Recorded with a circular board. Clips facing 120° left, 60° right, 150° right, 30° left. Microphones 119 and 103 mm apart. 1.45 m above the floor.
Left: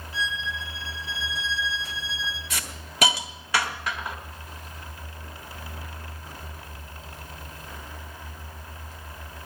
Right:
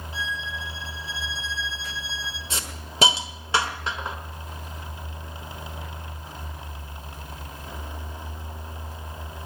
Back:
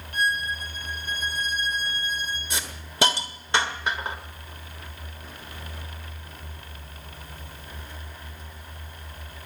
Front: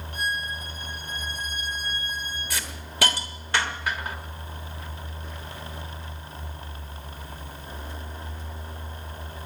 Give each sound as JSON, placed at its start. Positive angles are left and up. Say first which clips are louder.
{"t": 0.1, "sound": "a violin", "louder": "left 2 dB, back 4 dB", "azimuth_deg": -125, "distance_m": 3.0}
{"t": 2.5, "sound": "a hiss", "louder": "right 2 dB, even", "azimuth_deg": -100, "distance_m": 1.3}